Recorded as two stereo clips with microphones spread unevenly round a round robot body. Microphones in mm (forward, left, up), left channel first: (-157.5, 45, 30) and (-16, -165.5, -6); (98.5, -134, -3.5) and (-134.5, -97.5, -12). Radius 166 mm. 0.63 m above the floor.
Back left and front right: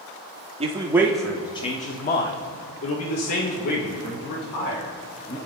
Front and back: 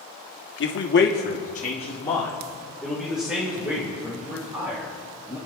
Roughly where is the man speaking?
Ahead.